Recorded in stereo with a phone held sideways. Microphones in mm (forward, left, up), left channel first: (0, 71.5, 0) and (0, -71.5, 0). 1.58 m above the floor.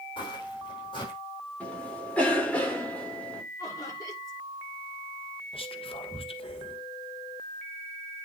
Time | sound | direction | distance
0.2 | footsteps | 35° left (ahead or behind) | 4.5 m
1.6 | a cough | 10° left (ahead or behind) | 4.5 m
3.6 | laughter | 25° left (ahead or behind) | 5.5 m
5.5 | whispering | 35° left (ahead or behind) | 1.7 m